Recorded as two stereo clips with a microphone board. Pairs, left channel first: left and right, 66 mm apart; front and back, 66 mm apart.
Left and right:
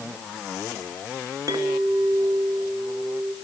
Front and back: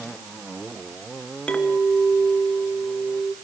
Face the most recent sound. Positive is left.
turn(degrees=-75)